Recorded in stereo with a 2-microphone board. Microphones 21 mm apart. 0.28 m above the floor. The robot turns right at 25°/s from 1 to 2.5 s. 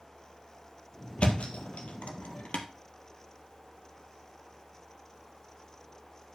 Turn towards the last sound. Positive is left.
turn(degrees=85)